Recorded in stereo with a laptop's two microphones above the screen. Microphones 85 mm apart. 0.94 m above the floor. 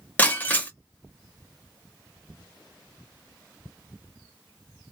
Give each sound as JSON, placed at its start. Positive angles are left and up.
{"t": 0.2, "sound": "breaking glass", "side_deg": 20, "distance_m": 0.7}